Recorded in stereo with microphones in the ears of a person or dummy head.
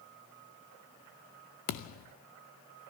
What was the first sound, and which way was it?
A thud, 50° left (ahead or behind).